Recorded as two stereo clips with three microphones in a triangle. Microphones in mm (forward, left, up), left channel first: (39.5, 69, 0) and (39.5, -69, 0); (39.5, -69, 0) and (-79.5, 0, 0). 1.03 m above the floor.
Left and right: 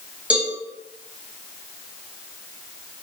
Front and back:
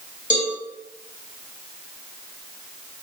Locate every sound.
0.3 s a cowbell: 10° right, 1.4 m